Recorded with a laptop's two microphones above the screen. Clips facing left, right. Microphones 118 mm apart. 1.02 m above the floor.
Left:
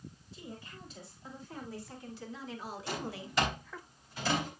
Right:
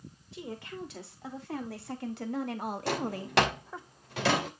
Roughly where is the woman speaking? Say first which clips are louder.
Right 9 dB; right.